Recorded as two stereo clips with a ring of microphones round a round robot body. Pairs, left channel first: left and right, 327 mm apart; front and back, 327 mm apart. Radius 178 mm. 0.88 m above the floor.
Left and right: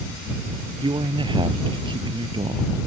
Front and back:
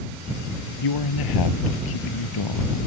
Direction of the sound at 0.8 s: 15° right.